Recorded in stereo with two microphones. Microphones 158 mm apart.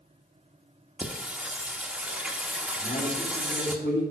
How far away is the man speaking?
About 3 m.